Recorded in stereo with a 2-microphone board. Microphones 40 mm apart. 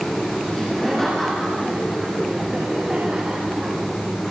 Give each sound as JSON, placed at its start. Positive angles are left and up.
{"t": 0.5, "sound": "laughter", "side_deg": 15, "distance_m": 5.5}